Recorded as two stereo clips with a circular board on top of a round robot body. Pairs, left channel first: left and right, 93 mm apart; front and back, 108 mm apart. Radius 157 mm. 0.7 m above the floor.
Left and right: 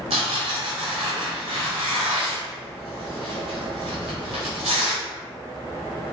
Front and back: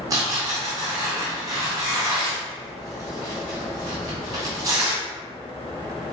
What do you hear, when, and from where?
0.1 s tearing paper: 120° right, 0.5 m